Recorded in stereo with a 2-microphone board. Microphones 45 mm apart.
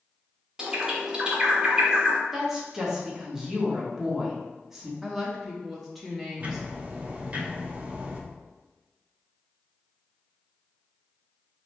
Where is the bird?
15° right (ahead or behind), 0.7 m.